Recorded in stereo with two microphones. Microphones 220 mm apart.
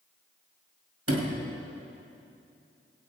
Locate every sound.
1.1 s a sliding door: 75° right (ahead or behind), 2.0 m